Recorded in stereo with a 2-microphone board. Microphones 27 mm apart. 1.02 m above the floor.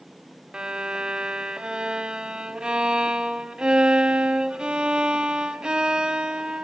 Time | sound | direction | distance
0.5 | a violin | 35° right (ahead or behind) | 1.3 m